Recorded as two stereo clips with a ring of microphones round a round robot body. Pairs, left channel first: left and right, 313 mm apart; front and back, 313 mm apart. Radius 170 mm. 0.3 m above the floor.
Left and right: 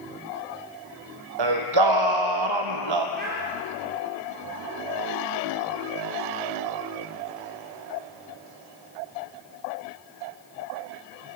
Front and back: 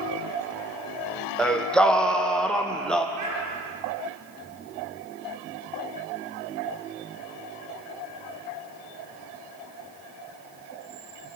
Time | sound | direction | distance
1.4 | singing | 90° right | 2 m
3.2 | a child speaking | 150° right | 4.5 m